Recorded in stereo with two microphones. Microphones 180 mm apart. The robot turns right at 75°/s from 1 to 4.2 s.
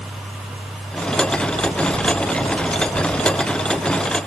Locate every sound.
Only background noise.